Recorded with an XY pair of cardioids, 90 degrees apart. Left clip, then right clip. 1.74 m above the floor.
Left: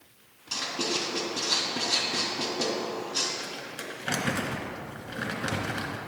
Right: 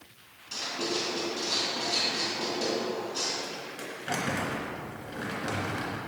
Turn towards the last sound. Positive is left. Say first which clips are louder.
# even
turn(degrees=55)